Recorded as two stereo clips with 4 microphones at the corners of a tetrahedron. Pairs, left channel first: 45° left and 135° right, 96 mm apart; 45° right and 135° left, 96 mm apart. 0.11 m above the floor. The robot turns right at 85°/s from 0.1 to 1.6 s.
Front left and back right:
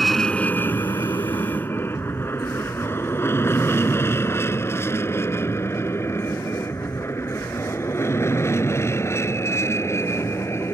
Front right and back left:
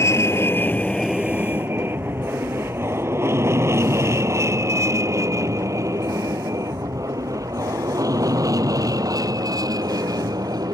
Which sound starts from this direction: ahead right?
An aircraft, at 0.0 s.